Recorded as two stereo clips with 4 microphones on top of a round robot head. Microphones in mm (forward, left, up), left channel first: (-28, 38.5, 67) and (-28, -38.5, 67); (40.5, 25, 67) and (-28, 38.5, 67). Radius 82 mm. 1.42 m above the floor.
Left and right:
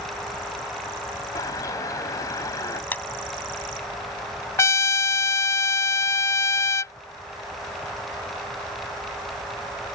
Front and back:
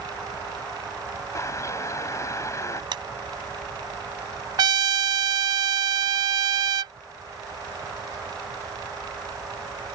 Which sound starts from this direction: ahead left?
A bird, at 1.4 s.